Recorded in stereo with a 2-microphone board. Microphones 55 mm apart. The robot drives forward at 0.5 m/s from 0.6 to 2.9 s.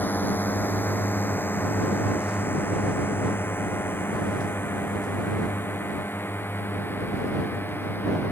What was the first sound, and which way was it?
A drone, 35° left (ahead or behind).